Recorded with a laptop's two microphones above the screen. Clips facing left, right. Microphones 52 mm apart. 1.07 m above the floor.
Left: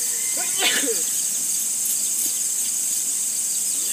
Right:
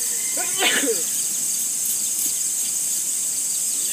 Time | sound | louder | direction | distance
0.4 | a sneeze | right 2 dB | 15° right (ahead or behind) | ?